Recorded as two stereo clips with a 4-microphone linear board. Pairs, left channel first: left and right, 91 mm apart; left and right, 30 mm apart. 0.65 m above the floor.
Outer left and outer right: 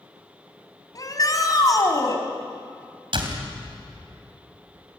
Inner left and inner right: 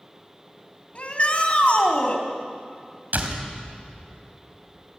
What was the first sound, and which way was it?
A shout, 40° left (ahead or behind).